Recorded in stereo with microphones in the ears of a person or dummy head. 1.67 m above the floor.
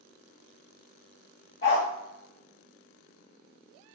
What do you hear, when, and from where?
1.6 s a dog barking: 30° left (ahead or behind), 2.0 m